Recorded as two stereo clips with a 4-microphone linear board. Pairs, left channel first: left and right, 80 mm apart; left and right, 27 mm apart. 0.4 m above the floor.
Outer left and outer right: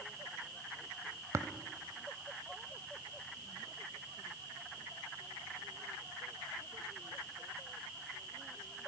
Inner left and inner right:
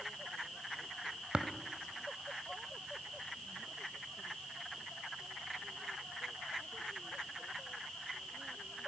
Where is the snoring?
No snoring in this recording.